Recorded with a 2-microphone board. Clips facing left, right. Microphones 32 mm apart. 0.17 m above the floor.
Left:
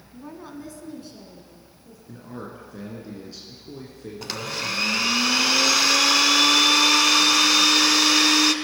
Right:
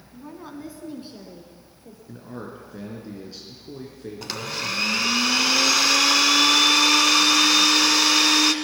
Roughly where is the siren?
I don't hear a siren.